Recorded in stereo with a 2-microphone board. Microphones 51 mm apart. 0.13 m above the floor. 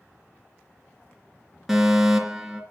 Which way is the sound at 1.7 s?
5° right (ahead or behind).